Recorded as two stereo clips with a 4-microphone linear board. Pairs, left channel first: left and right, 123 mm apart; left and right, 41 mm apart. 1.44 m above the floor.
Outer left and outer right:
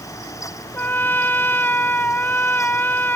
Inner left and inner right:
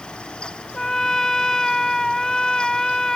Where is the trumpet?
15° left (ahead or behind).